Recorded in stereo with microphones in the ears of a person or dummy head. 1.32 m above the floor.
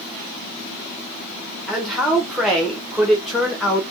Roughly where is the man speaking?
Centre.